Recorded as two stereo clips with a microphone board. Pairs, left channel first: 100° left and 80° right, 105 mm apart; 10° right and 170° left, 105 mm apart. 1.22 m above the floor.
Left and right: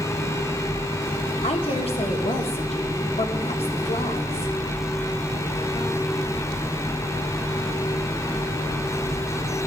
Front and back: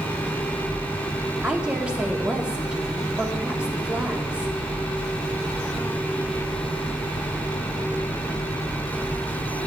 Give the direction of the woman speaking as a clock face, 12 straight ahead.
9 o'clock.